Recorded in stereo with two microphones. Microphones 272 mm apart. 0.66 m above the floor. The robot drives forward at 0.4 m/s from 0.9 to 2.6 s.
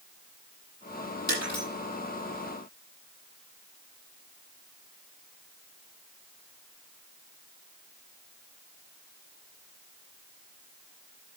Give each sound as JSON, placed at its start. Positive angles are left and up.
{"t": 1.3, "sound": "breaking glass", "side_deg": 75, "distance_m": 9.5}